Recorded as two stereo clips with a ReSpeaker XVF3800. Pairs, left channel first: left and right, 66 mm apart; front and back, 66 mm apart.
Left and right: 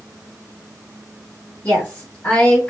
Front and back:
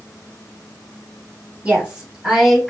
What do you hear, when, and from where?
1.6 s a woman speaking: 135° left, 1.7 m; by 2.7 s 90° left, 1.6 m